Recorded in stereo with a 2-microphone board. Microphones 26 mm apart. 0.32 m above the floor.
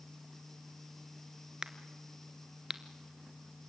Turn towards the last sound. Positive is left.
turn(degrees=-25)  # may be behind; listen again after turning